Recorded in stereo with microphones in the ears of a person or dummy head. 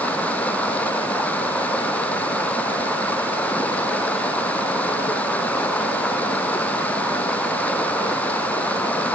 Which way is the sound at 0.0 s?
10° left (ahead or behind).